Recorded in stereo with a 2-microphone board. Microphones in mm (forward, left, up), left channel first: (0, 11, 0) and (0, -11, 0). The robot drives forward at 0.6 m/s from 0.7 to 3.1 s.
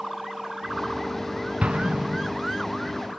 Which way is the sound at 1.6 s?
70° right (ahead or behind).